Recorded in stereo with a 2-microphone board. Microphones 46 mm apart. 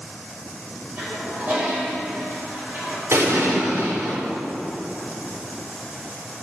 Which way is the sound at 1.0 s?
40° right (ahead or behind).